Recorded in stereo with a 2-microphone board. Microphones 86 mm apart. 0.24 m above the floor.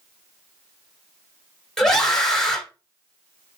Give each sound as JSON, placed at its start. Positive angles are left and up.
{"t": 1.8, "sound": "a scream", "side_deg": 5, "distance_m": 1.5}